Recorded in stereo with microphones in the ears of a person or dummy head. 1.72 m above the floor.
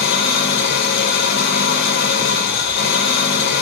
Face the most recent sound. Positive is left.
turn(degrees=65)  # may be behind; listen again after turning